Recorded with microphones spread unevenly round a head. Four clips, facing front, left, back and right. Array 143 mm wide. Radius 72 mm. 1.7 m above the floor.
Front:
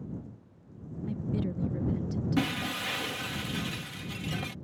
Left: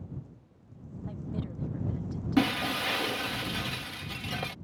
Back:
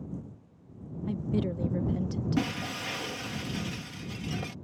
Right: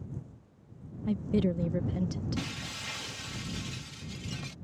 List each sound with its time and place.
1.1 s a woman speaking: 115° right
2.4 s breaking glass: 90° left